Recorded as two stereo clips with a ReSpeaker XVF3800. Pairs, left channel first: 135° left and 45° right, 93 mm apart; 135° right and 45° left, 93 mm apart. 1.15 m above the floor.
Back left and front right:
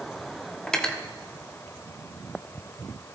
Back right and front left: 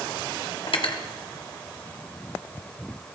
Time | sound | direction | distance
0.7 | cutlery clinking | 145° right | 1.1 m